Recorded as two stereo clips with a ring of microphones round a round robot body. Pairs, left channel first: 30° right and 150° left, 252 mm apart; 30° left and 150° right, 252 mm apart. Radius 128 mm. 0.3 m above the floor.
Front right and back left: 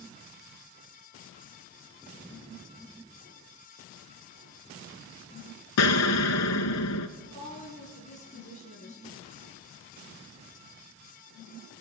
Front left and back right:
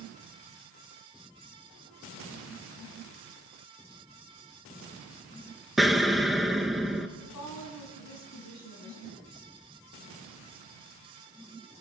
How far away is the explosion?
About 0.7 m.